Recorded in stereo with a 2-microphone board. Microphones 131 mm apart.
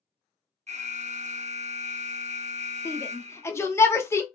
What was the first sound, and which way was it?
An alarm, 60° right (ahead or behind).